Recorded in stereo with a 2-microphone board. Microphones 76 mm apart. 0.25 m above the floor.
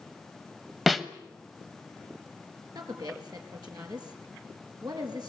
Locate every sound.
0.9 s a snare drum: centre (ahead or behind), 0.8 m
2.8 s a woman speaking: 60° right (ahead or behind), 4 m